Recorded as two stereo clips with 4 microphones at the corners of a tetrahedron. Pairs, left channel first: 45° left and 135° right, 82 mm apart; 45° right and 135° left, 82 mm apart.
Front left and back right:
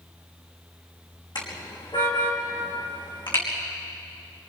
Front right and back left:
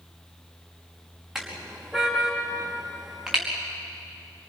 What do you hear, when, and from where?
1.4 s a car horn: 50° left, 4.5 m